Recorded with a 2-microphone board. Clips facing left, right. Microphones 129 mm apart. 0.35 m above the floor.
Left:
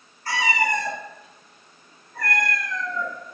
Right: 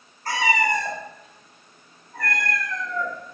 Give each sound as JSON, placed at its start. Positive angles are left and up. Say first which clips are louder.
{"t": 0.2, "sound": "a cat meowing", "louder": "right 1 dB", "side_deg": -50, "distance_m": 0.8}